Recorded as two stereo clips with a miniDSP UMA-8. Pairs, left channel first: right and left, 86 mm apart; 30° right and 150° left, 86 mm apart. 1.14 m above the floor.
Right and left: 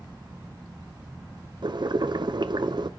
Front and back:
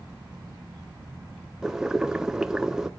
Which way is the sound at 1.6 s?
65° left.